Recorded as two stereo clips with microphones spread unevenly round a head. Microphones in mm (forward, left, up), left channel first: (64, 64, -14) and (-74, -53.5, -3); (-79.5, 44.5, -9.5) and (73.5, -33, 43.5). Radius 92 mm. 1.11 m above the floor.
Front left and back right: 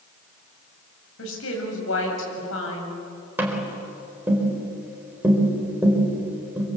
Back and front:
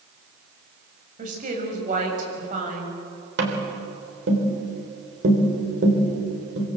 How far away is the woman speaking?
About 7 m.